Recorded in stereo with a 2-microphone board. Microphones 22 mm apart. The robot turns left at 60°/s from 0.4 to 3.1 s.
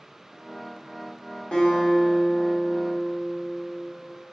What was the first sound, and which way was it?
A guitar, 125° left.